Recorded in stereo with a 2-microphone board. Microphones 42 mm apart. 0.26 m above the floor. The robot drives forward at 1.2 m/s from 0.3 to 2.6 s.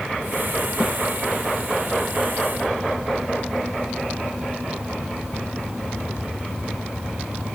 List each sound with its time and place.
0.8 s a snare drum: 15° right (ahead or behind), 8.5 m